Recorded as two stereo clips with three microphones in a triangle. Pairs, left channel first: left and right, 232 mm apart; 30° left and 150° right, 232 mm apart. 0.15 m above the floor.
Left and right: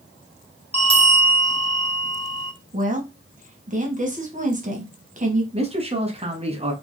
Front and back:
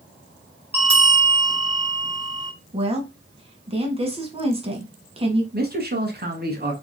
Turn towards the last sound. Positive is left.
turn(degrees=-140)